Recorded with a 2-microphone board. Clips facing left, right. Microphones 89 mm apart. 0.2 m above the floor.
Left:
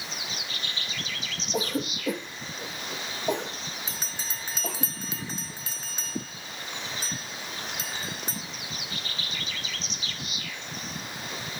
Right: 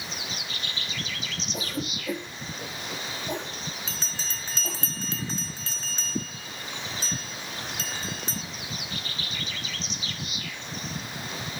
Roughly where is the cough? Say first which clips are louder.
Left 6 dB; left.